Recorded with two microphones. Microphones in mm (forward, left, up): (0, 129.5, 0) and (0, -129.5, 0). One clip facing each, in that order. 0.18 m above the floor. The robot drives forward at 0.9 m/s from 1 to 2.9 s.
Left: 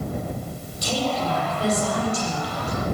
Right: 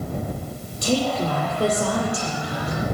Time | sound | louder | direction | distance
0.8 | a woman speaking | right 4 dB | 55° right (ahead or behind) | 6.5 m